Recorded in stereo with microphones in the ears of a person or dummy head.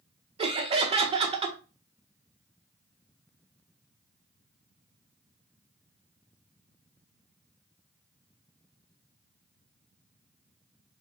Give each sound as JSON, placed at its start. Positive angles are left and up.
{"t": 0.4, "sound": "laughter", "side_deg": -25, "distance_m": 0.5}